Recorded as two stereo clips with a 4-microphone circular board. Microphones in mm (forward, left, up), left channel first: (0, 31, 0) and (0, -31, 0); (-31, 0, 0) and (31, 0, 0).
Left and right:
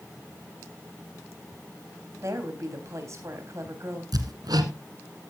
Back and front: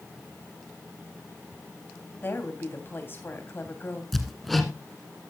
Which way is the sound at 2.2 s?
130° right.